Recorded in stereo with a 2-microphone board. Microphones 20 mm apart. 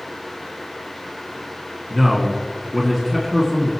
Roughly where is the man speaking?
Centre.